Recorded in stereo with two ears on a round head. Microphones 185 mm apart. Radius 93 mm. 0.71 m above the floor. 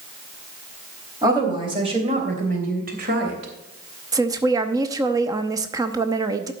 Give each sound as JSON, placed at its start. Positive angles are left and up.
{"t": 1.2, "sound": "a woman speaking", "side_deg": -20, "distance_m": 3.5}
{"t": 4.1, "sound": "a woman speaking", "side_deg": -20, "distance_m": 0.8}